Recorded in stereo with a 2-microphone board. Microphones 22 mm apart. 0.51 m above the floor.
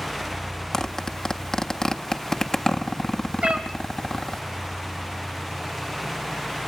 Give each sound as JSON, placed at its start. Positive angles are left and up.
{"t": 0.7, "sound": "a zipper", "side_deg": 25, "distance_m": 1.6}
{"t": 3.4, "sound": "a cat meowing", "side_deg": -75, "distance_m": 2.0}